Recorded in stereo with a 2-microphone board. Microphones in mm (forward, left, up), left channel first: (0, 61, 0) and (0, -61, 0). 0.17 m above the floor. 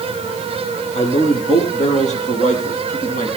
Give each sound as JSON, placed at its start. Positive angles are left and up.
{"t": 0.9, "sound": "a man speaking", "side_deg": 50, "distance_m": 4.5}